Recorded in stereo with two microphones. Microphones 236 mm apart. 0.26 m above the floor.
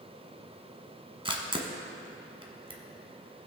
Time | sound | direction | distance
1.2 | a camera shutter | 20° right (ahead or behind) | 1.2 m